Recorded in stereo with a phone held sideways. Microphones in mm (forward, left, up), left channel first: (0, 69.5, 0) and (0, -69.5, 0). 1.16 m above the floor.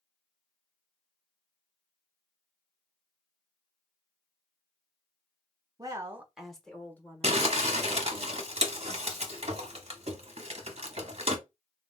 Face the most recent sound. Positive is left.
turn(degrees=-45)  # may be behind; listen again after turning